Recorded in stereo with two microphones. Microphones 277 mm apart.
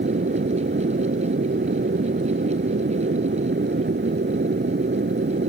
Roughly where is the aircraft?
Right.